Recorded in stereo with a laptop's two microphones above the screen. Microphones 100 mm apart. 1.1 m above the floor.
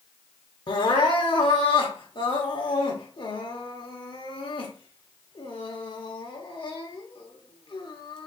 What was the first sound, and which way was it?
Crying, 55° left (ahead or behind).